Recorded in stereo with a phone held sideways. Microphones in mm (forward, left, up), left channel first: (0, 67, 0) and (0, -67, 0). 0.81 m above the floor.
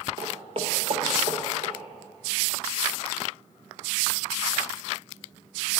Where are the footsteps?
30° right (ahead or behind), 0.9 m; by 1.7 s 65° right (ahead or behind), 2 m.